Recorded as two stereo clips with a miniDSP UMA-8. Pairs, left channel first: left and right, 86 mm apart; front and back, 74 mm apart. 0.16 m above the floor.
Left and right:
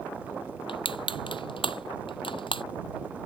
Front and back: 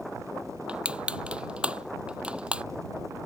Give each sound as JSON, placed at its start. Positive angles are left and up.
{"t": 0.7, "sound": "crushing", "azimuth_deg": 105}